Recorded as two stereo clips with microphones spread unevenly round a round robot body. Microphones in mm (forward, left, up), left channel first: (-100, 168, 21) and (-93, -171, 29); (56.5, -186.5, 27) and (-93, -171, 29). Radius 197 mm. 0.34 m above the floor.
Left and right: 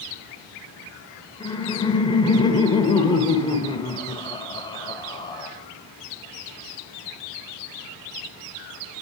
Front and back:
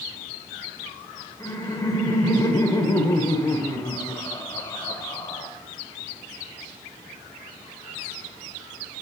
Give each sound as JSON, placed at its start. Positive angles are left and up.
{"t": 1.4, "sound": "laughter", "azimuth_deg": 30, "distance_m": 1.1}